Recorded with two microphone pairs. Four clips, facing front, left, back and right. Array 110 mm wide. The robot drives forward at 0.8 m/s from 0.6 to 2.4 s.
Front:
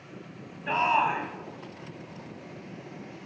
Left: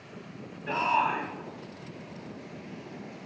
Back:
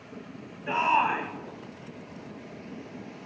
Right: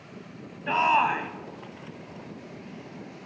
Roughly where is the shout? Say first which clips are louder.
Right 4 dB, even; ahead right.